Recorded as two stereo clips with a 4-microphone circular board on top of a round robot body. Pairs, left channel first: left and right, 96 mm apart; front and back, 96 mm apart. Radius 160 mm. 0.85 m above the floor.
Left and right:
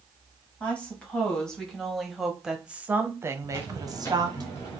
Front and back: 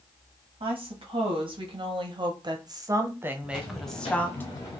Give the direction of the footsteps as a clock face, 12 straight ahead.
11 o'clock.